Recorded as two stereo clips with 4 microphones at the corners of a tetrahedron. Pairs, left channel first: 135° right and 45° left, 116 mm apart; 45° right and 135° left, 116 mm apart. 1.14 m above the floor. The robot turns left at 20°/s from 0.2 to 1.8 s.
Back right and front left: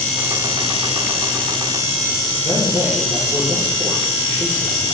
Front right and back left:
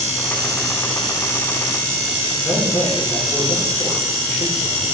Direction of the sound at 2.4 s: 10° left.